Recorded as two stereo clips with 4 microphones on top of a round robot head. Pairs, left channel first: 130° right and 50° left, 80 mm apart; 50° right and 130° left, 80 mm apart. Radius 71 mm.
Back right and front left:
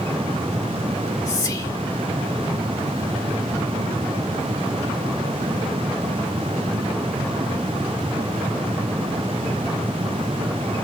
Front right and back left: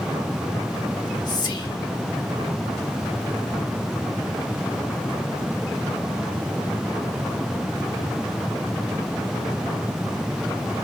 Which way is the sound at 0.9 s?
85° right.